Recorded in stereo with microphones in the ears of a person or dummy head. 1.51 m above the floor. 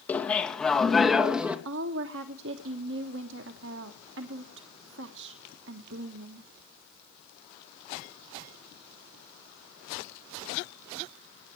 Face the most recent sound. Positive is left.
turn(degrees=-65)  # may be behind; listen again after turning